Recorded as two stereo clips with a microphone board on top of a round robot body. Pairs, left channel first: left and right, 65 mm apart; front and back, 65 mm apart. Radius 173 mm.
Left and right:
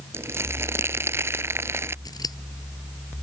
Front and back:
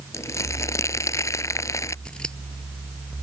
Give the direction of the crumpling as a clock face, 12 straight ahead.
1 o'clock.